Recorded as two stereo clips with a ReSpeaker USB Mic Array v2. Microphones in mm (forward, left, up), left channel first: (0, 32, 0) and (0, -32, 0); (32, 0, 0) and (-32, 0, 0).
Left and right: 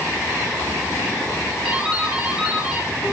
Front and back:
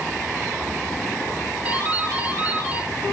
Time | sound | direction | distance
1.6 | a doorbell | 145° right | 1.8 m